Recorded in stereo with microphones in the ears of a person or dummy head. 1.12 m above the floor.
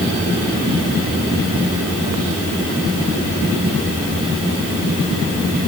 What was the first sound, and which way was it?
Only background noise.